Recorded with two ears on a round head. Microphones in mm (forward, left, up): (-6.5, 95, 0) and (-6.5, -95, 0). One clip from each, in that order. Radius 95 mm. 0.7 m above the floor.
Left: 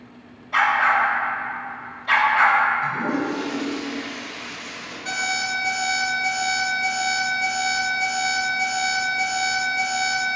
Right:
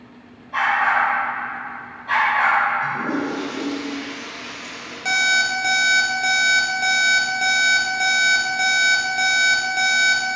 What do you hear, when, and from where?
0.5 s a dog barking: 60° left (ahead or behind), 0.9 m
2.8 s a toilet flushing: 10° right (ahead or behind), 1.6 m
5.0 s an alarm clock: 70° right (ahead or behind), 0.8 m